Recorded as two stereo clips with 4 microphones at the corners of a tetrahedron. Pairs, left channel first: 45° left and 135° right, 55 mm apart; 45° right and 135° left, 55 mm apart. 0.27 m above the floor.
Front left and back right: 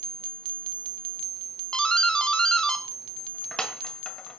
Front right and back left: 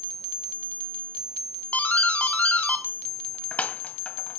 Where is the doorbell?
20° right, 1.7 m.